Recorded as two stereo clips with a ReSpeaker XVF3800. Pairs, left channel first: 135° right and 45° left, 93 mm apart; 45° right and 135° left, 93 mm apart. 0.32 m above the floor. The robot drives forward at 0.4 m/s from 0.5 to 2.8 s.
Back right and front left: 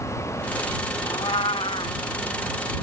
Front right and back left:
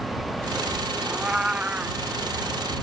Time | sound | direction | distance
1.1 | a cat meowing | 140° right | ?